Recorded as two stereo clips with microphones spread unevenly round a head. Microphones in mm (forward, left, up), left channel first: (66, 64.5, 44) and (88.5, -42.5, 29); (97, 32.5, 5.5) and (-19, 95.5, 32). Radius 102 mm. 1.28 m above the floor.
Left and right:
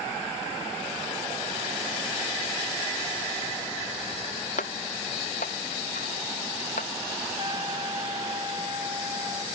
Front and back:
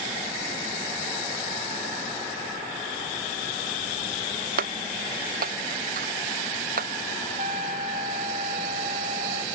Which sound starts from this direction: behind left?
Breaking glass, at 4.6 s.